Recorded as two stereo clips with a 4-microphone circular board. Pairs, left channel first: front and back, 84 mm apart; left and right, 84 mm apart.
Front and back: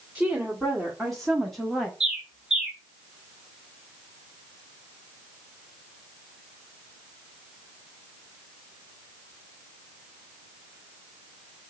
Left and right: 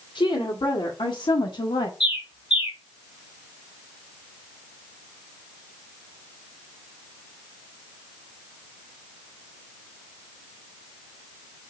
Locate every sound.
0.1 s a woman speaking: 95° left, 2.0 m; by 1.9 s 90° left, 0.9 m
2.0 s a bird: 95° left, 1.8 m